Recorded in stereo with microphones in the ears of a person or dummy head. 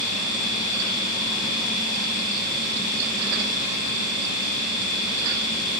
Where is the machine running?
60° right (ahead or behind), 9 m.